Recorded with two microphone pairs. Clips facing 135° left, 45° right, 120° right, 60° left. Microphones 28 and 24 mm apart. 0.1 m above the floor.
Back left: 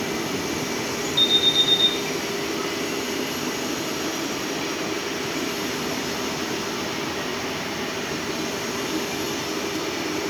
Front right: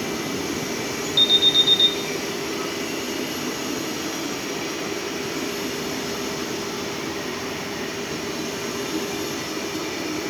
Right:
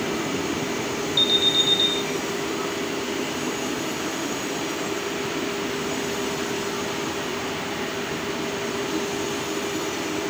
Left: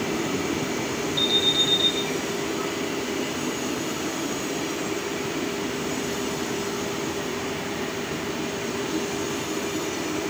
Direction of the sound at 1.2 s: 90° right.